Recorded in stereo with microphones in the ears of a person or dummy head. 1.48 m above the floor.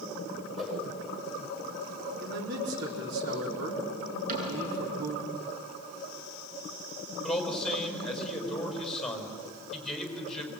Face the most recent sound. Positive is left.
turn(degrees=5)  # may be behind; listen again after turning